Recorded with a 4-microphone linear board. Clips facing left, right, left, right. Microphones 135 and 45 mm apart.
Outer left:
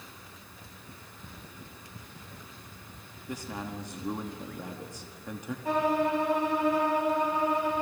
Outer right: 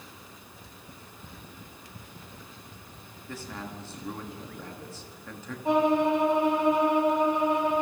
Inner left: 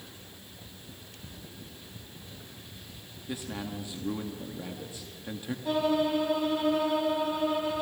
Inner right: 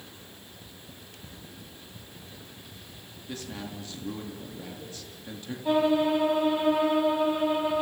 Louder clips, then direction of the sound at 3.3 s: Outer left 2 dB, inner left 2 dB; 15° left (ahead or behind).